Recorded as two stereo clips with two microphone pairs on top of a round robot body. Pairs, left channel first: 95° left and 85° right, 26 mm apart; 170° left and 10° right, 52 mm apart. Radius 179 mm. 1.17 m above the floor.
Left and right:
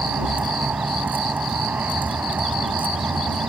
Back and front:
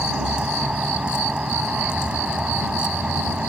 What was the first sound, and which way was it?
A vehicle, 85° right.